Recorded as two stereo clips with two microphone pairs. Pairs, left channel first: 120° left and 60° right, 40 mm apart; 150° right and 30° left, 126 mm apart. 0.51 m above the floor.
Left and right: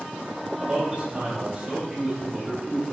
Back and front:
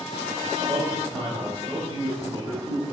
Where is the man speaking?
5° right, 0.8 m.